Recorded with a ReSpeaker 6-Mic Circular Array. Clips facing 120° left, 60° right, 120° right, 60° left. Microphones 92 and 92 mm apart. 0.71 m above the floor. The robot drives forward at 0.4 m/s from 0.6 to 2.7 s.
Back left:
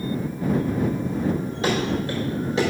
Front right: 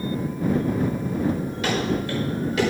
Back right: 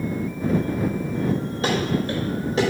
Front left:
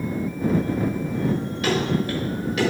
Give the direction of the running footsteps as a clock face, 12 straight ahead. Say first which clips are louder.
Back left 1 dB, front left 1 dB; 6 o'clock.